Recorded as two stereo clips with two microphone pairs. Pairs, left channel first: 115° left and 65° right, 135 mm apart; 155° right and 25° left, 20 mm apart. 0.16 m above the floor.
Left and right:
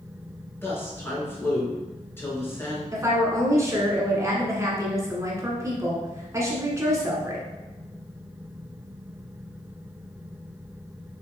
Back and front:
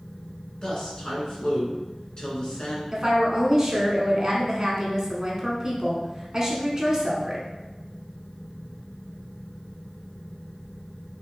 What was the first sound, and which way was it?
A woman speaking, 175° left.